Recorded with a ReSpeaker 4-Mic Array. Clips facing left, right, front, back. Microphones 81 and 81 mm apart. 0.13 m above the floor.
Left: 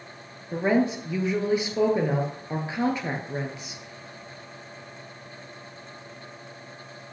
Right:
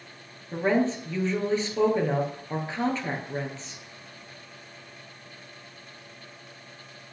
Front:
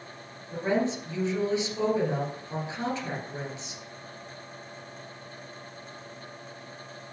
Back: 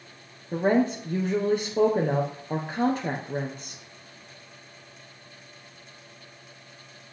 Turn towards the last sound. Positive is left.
turn(degrees=165)